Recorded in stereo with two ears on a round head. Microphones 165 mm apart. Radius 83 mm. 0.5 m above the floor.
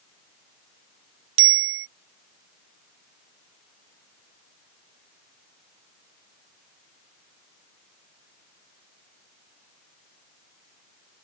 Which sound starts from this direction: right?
A bicycle bell, at 1.4 s.